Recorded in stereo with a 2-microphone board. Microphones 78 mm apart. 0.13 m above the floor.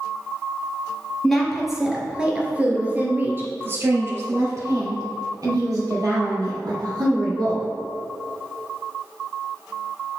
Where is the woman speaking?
5° left (ahead or behind), 1.7 m; by 7.6 s 60° right (ahead or behind), 3.5 m.